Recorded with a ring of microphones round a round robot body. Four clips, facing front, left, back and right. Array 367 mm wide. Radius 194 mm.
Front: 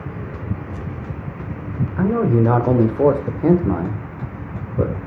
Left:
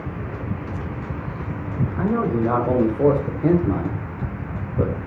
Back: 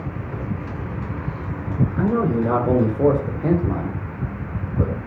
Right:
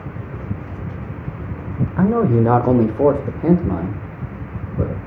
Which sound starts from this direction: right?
A man speaking, at 2.0 s.